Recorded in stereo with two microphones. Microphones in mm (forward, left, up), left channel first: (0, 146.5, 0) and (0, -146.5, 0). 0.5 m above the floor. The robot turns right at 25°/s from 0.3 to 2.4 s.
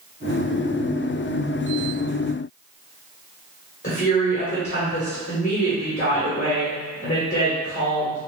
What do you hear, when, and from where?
3.8 s a woman speaking: 35° left (ahead or behind), 1.3 m